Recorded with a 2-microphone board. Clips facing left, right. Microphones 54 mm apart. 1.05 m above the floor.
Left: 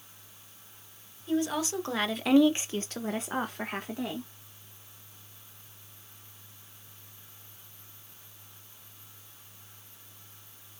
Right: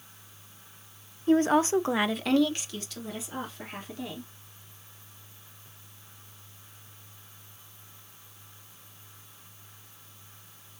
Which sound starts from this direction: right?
A woman speaking, at 1.3 s.